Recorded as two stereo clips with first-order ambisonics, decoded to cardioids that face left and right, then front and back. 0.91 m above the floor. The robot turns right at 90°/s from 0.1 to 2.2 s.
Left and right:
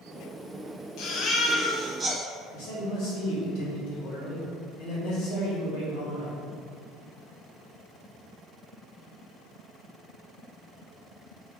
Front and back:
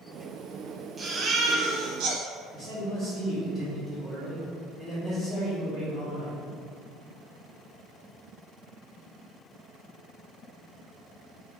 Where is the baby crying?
105° left, 1.1 m; by 2.2 s 145° right, 1.1 m.